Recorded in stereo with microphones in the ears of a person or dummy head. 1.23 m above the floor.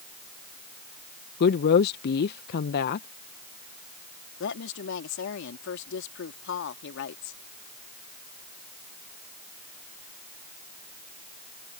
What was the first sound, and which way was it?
A woman speaking, 50° left (ahead or behind).